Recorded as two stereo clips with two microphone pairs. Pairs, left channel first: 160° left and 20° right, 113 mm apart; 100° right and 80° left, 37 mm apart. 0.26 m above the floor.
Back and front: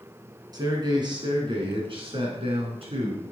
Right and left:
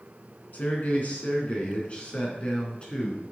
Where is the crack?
No crack in this recording.